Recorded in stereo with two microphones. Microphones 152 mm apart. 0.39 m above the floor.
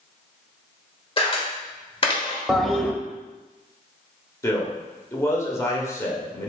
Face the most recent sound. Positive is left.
turn(degrees=20)  # may be behind; listen again after turning